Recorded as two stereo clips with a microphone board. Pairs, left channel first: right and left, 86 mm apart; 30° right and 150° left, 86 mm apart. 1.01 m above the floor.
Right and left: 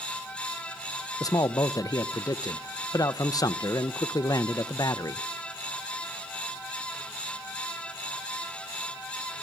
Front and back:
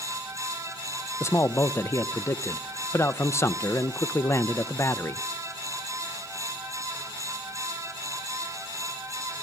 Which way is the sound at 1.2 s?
75° right.